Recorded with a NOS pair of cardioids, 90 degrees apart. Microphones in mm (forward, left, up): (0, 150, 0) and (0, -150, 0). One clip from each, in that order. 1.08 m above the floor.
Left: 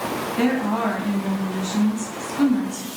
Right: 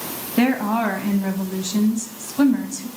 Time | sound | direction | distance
0.4 | a woman speaking | 45° right | 0.9 m